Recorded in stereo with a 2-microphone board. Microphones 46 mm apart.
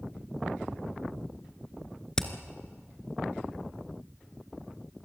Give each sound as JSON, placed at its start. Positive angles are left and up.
{"t": 2.2, "sound": "hammering", "side_deg": 15, "distance_m": 1.6}